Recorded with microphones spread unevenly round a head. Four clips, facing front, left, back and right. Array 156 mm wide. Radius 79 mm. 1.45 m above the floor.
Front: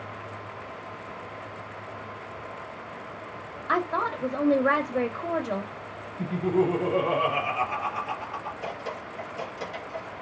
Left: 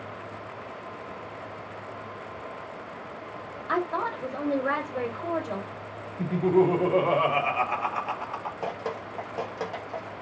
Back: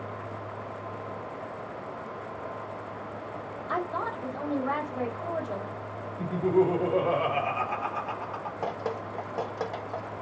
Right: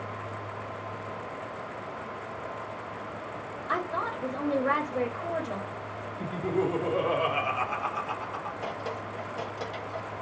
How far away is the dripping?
About 0.8 m.